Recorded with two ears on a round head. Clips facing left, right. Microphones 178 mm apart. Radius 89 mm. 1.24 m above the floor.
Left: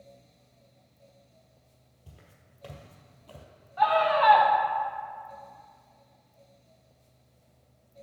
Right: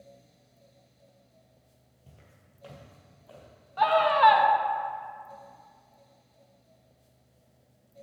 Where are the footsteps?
10° left (ahead or behind), 1.9 m; by 3.5 s 35° left (ahead or behind), 2 m.